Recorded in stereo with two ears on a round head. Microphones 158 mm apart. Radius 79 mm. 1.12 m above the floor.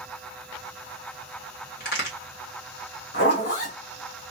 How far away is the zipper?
About 1.4 m.